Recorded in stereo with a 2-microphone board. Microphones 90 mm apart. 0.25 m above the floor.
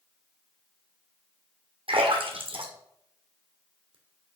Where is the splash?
85° right, 1.7 m.